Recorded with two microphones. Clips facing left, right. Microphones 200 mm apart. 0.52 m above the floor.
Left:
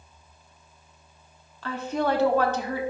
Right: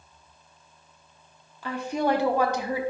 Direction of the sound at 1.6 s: 15° right (ahead or behind).